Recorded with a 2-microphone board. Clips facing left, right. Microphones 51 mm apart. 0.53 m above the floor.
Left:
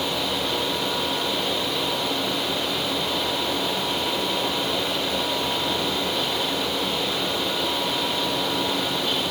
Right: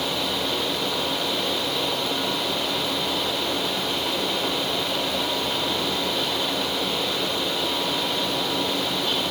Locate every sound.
Only background noise.